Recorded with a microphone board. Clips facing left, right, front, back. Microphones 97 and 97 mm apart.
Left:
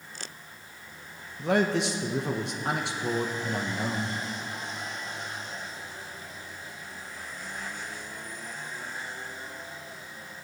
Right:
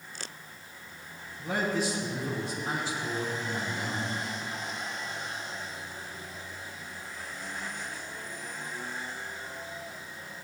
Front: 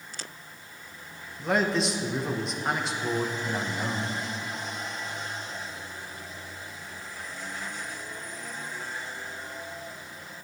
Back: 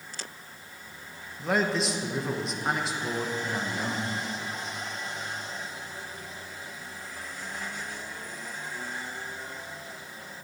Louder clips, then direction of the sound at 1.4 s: Left 5 dB, front 1 dB; 90° left.